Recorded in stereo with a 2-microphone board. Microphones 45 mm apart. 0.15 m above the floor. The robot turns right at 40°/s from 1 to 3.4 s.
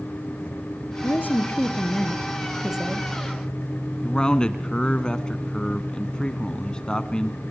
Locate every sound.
1.0 s a woman speaking: 125° left, 3.5 m; by 3.1 s 155° right, 3.5 m
4.0 s a man speaking: 20° left (ahead or behind), 1.3 m